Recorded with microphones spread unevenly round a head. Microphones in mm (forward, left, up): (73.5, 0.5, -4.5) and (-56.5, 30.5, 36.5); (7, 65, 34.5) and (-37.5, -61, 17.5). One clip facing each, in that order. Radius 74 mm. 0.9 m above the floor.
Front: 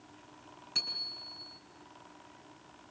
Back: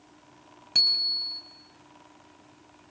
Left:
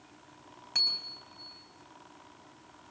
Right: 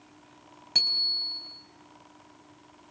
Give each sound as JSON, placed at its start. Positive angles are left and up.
{"t": 0.8, "sound": "a bicycle bell", "azimuth_deg": -165, "distance_m": 4.0}